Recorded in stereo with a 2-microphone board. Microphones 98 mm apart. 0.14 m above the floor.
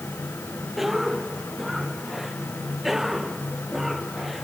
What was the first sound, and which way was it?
A cough, centre (ahead or behind).